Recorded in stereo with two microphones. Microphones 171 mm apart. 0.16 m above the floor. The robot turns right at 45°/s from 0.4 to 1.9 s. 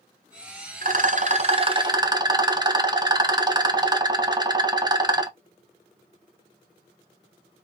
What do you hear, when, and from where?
0.8 s a rattle: 80° right, 0.5 m; by 5.3 s 30° right, 0.5 m